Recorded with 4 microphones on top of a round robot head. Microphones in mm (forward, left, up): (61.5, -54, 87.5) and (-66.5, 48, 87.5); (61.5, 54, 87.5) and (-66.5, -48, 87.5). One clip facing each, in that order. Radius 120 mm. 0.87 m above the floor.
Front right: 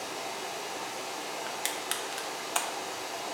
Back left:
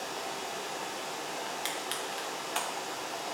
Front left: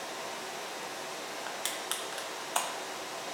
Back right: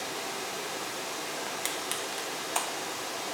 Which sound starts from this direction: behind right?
Running water, at 0.0 s.